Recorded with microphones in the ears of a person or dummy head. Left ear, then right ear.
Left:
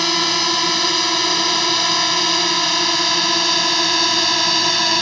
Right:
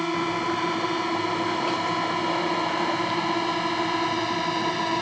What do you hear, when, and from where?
0.0 s a drone: 85° left; by 5.0 s 80° left